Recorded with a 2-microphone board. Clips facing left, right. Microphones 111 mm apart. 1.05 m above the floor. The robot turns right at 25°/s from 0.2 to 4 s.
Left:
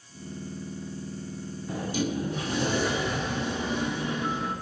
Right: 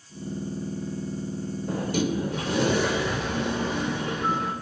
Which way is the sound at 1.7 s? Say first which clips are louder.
Right 3 dB; 125° right.